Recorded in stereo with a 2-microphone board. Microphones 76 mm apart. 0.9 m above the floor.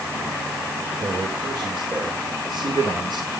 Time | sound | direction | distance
1.0 | a man speaking | 75° right (ahead or behind) | 4 m